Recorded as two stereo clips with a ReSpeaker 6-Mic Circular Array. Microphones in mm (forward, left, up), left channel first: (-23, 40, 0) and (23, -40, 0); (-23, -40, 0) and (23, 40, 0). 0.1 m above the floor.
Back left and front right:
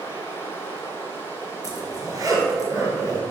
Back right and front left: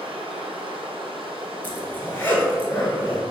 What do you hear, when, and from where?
0.0 s running water: 55° left, 0.8 m
1.6 s a zipper: 65° right, 1.1 m